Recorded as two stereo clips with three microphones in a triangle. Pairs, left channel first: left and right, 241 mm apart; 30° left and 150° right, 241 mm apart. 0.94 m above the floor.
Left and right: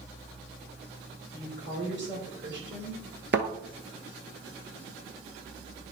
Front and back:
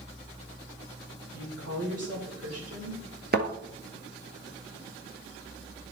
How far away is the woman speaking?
About 3 m.